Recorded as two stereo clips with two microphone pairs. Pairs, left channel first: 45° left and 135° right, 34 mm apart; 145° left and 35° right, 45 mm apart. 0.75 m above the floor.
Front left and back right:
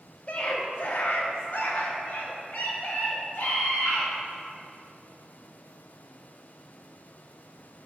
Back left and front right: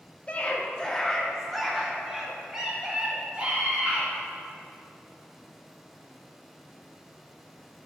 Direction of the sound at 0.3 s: 90° left.